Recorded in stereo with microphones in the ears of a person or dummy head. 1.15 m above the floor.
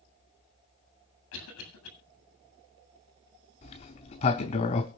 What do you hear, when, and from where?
1.3 s a cough: 85° left, 8 m
3.6 s a sliding door: 20° left (ahead or behind), 0.8 m